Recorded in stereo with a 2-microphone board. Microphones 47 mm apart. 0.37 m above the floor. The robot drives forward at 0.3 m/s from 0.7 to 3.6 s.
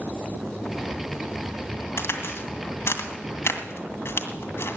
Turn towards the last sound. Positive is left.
turn(degrees=65)  # may be behind; listen again after turning